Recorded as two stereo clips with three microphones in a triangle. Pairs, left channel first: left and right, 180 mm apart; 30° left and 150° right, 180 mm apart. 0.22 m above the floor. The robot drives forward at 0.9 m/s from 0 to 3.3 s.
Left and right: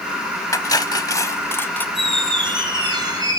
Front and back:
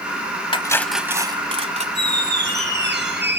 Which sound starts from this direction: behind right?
A squeak, at 1.9 s.